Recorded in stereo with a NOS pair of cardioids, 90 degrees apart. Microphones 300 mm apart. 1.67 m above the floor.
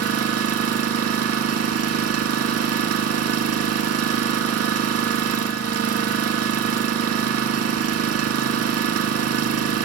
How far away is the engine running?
About 2.5 m.